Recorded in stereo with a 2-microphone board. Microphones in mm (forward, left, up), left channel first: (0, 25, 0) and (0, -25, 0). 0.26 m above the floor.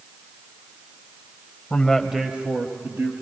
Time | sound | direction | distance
1.7 | a man speaking | 25° left (ahead or behind) | 1.0 m